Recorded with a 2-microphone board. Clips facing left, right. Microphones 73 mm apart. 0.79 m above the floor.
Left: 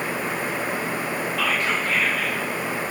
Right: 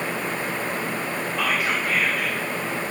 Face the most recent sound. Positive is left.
turn(degrees=-10)  # may be behind; listen again after turning